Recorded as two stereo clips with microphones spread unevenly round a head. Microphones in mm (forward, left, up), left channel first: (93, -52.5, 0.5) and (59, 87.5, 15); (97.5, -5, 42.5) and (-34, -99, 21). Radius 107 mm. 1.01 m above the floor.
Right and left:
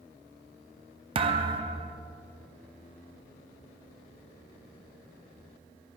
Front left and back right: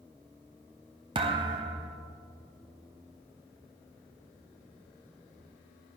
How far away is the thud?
About 0.5 m.